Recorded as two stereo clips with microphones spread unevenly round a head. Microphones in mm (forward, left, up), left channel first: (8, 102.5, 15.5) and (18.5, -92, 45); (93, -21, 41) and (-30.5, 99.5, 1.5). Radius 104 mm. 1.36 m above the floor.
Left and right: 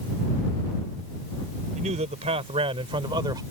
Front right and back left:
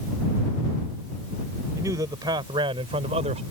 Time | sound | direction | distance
1.8 | a man speaking | 145° right | ?